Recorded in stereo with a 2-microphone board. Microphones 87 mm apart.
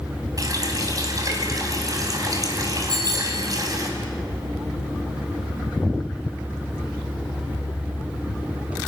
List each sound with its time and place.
0.4 s a running tap: 45° right (ahead or behind), 3.5 m
2.9 s a bicycle bell: 55° right (ahead or behind), 9.5 m